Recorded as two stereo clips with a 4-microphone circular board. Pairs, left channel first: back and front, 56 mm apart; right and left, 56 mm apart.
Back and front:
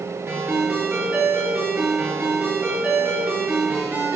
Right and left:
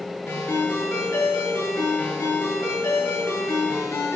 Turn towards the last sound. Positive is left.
turn(degrees=-55)